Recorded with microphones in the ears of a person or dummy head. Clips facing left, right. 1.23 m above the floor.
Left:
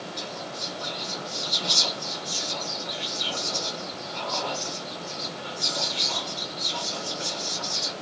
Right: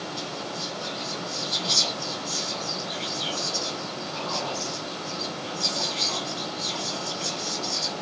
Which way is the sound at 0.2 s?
25° left (ahead or behind).